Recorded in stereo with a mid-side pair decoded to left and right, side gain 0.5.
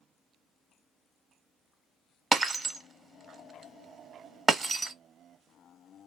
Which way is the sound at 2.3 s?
25° right.